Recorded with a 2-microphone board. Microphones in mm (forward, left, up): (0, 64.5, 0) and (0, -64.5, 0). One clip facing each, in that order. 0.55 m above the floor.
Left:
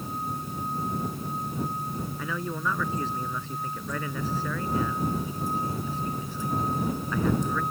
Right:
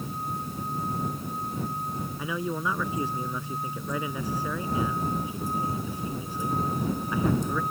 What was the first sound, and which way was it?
A man speaking, 15° right (ahead or behind).